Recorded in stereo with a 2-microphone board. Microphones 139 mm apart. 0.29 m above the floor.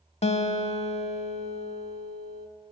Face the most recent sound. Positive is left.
turn(degrees=50)  # may be behind; listen again after turning